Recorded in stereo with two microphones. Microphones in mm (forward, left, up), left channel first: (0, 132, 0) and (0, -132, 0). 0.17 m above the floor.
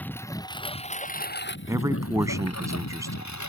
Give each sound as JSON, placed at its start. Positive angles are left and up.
{"t": 0.0, "sound": "a lawn mower", "side_deg": 5}
{"t": 1.7, "sound": "a man speaking", "side_deg": -10}